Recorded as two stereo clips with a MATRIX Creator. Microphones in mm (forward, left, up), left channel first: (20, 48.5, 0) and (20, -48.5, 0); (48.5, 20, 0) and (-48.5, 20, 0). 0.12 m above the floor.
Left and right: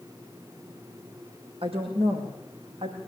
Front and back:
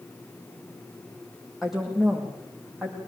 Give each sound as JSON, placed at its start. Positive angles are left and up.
{"t": 1.6, "sound": "a woman speaking", "azimuth_deg": -90, "distance_m": 7.0}